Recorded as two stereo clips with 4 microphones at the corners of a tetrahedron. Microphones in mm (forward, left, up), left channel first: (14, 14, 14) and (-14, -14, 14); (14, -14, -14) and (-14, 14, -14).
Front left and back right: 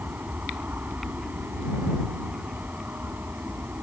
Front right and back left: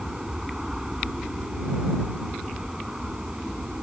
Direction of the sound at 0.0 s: 150° right.